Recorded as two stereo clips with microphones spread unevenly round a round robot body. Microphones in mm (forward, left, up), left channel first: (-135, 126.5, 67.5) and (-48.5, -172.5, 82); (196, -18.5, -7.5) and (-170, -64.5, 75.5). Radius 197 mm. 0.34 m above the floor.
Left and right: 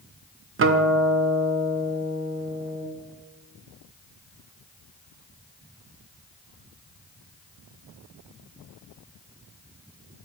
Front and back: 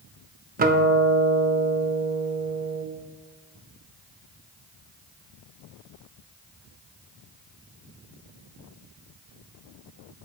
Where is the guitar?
100° right, 0.7 m.